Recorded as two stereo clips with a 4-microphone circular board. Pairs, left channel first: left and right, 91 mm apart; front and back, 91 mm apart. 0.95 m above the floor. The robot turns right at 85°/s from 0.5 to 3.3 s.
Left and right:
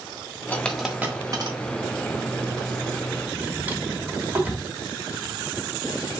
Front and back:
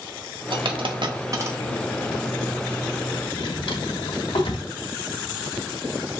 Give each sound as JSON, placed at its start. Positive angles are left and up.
{"t": 0.5, "sound": "a dropped coin", "azimuth_deg": 155, "distance_m": 1.2}
{"t": 3.3, "sound": "a drawer", "azimuth_deg": -15, "distance_m": 1.6}